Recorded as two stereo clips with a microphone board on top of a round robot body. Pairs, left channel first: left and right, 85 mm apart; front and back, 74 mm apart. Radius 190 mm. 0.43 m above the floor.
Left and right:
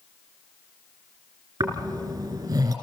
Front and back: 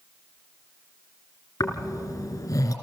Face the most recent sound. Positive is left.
turn(degrees=-50)